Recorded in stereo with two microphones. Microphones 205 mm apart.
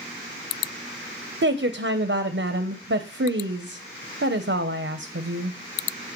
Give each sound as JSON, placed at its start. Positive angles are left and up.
{"t": 1.4, "sound": "a woman speaking", "side_deg": -80, "distance_m": 0.7}